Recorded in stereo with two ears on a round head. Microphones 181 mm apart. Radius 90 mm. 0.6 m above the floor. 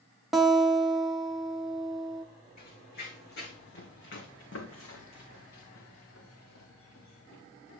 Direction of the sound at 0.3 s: Centre (ahead or behind).